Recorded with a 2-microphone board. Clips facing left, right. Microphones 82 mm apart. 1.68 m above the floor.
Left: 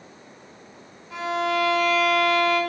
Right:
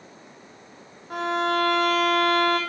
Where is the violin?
55° right (ahead or behind), 1.6 m.